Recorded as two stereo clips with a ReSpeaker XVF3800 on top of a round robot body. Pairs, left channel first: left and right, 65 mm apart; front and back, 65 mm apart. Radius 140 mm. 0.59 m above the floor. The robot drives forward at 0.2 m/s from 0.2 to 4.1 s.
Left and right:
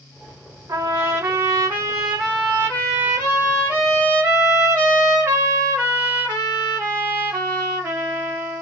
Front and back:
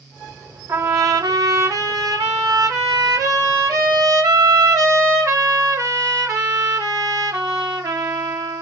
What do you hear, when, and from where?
0.7 s a trumpet: 140° right, 1.0 m; by 8.6 s 155° right, 1.6 m